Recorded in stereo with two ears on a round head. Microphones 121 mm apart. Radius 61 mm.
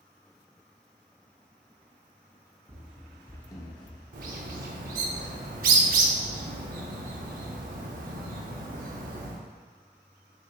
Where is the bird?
70° right (ahead or behind), 0.6 m.